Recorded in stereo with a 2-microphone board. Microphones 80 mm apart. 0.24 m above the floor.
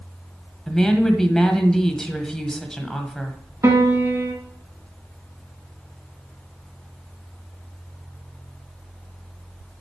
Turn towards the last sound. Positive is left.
turn(degrees=-45)  # may be behind; listen again after turning